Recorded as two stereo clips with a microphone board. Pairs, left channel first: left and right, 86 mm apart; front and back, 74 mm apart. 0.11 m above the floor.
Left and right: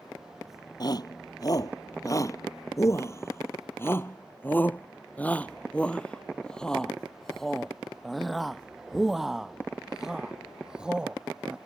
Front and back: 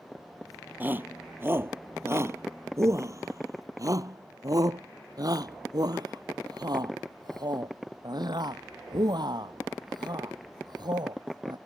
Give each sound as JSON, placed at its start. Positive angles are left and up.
{"t": 0.8, "sound": "a shout", "azimuth_deg": 120}